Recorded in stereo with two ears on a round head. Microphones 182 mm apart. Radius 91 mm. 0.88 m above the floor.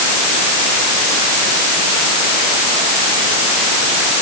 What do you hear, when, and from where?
Only background noise.